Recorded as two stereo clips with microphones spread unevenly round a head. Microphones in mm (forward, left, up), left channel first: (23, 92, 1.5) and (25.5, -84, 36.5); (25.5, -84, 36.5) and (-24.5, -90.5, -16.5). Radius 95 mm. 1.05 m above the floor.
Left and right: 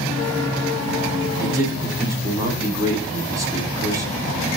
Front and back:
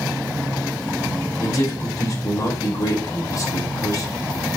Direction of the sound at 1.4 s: 15° right.